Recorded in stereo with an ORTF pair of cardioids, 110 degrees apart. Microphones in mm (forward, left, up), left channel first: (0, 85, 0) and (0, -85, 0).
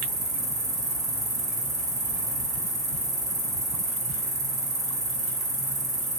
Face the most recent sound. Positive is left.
turn(degrees=-20)